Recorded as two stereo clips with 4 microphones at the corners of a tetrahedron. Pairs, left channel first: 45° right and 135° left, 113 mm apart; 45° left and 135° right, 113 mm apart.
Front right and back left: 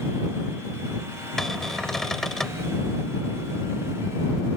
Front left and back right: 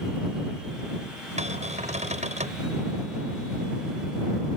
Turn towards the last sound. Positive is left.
turn(degrees=-130)